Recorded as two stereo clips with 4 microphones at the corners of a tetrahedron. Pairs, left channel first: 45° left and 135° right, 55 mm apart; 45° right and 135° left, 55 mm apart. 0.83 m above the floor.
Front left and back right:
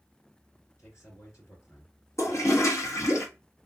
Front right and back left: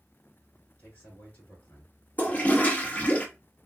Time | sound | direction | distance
0.8 | a man speaking | 10° left | 2.5 m
2.2 | a toilet flushing | 20° left | 0.7 m